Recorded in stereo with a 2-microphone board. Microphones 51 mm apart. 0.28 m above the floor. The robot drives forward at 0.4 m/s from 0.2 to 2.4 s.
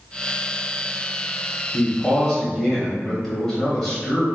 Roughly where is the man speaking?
Centre.